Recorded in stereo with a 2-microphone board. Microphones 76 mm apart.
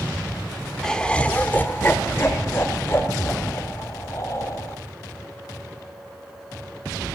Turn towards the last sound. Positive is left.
turn(degrees=40)  # may be behind; listen again after turning